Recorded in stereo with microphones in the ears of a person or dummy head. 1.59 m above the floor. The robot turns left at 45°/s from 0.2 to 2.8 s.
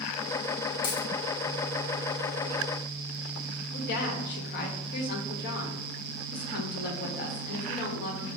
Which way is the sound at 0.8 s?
60° left (ahead or behind).